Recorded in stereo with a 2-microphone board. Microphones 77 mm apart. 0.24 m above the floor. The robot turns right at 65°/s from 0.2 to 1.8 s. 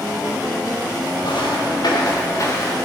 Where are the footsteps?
70° left (ahead or behind), 3 m; by 2.8 s 30° left (ahead or behind), 2 m.